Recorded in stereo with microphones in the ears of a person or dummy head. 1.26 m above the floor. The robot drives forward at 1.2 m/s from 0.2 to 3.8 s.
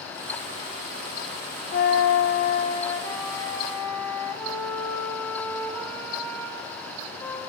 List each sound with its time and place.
1.7 s a flute: 50° left (ahead or behind), 0.7 m; by 7.4 s 15° left (ahead or behind), 2 m